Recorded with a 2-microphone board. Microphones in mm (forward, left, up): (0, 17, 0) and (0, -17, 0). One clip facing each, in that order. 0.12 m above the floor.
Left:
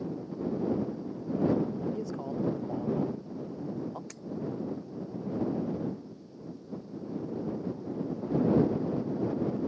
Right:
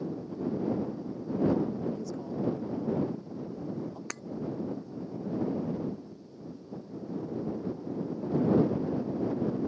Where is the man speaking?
35° left (ahead or behind).